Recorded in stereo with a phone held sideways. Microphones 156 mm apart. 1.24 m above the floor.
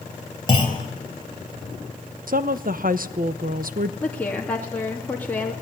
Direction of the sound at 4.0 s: 10° left (ahead or behind).